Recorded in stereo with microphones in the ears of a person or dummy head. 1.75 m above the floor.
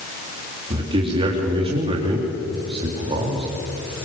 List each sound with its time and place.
0.7 s a man speaking: 30° right (ahead or behind), 4 m